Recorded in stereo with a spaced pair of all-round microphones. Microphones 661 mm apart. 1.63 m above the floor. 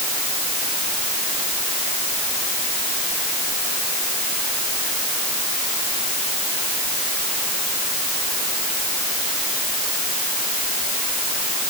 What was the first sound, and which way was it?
Only background noise.